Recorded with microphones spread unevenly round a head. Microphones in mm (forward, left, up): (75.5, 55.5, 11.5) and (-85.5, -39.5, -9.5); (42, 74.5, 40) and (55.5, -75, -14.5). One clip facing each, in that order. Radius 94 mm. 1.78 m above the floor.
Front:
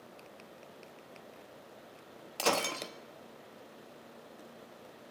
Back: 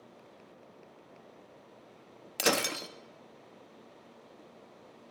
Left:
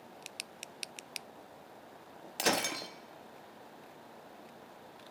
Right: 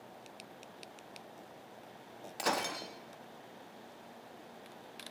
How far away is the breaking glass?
About 1.7 m.